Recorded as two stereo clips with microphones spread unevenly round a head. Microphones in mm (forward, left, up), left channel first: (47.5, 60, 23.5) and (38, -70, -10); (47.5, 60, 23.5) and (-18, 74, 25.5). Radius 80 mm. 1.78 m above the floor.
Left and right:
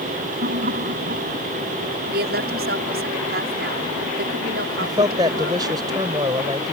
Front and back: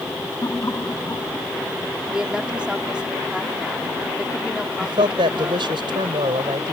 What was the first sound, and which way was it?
Laughter, 80° right.